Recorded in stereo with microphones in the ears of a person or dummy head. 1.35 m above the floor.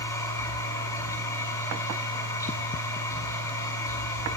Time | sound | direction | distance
0.0 | a machine running | 20° left (ahead or behind) | 6.5 m